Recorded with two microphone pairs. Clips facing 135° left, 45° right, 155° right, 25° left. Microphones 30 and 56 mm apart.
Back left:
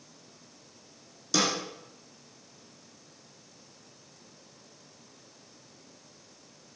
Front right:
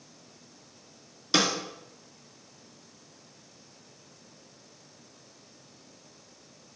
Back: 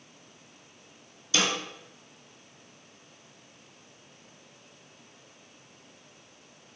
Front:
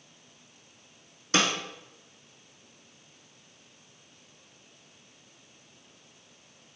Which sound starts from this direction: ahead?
A snare drum, at 1.3 s.